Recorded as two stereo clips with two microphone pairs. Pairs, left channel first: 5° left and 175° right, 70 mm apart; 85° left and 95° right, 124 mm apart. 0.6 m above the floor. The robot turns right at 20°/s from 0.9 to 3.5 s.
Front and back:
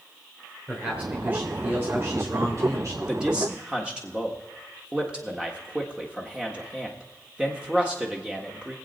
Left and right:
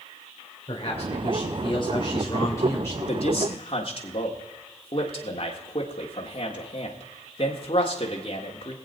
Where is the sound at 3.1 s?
105° left, 1.7 m; by 8.8 s 110° left, 1.7 m.